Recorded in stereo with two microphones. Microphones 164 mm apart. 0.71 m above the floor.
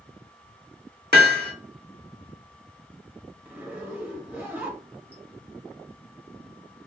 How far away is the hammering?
About 0.8 m.